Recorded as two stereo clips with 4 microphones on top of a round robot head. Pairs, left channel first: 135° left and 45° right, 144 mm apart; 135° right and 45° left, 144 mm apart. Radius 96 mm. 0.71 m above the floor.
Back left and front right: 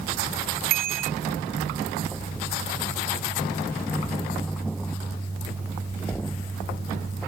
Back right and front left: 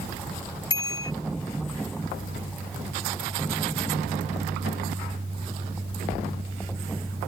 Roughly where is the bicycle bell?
Right.